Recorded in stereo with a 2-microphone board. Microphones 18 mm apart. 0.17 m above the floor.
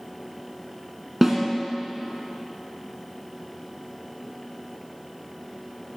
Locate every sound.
1.2 s a snare drum: 15° right (ahead or behind), 2 m